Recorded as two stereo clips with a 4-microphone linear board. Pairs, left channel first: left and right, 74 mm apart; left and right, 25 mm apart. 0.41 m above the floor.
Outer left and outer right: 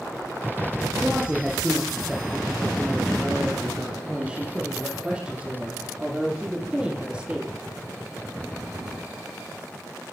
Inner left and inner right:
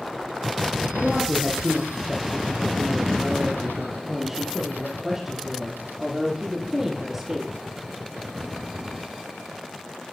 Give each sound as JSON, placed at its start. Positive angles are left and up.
{"t": 1.0, "sound": "a woman speaking", "side_deg": -10, "distance_m": 7.5}